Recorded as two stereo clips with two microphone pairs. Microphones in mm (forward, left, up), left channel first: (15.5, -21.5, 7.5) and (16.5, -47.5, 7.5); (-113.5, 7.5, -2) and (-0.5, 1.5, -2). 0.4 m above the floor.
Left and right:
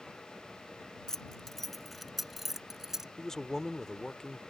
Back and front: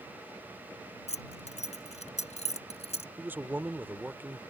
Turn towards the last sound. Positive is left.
turn(degrees=50)